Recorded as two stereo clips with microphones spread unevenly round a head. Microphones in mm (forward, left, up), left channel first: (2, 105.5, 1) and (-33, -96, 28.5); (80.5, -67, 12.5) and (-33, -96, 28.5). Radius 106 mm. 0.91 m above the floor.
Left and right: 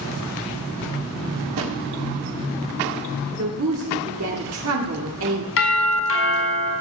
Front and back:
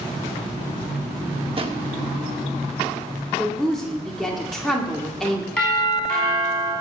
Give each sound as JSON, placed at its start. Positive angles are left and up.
{"t": 1.6, "sound": "a drawer", "azimuth_deg": -120, "distance_m": 1.5}
{"t": 3.4, "sound": "a woman speaking", "azimuth_deg": -70, "distance_m": 2.0}
{"t": 5.6, "sound": "a doorbell", "azimuth_deg": 95, "distance_m": 5.0}